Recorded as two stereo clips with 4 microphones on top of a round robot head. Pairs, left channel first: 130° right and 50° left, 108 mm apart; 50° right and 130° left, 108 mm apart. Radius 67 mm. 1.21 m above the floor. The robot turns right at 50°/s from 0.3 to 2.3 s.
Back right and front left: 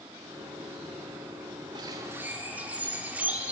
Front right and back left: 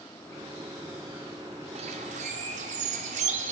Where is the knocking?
I don't hear knocking.